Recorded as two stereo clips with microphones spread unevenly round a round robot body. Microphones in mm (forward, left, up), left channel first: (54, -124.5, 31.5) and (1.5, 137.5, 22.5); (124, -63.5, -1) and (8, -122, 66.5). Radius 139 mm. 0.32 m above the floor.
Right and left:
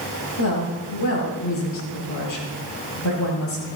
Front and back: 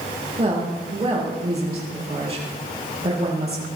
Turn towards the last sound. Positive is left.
turn(degrees=-105)